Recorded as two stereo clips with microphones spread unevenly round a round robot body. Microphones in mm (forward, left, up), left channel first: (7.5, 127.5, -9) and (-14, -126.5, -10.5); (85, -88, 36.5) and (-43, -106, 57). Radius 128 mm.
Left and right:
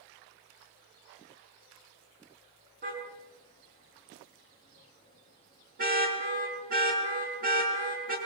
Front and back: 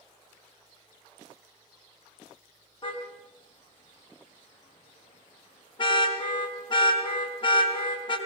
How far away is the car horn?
About 5.5 m.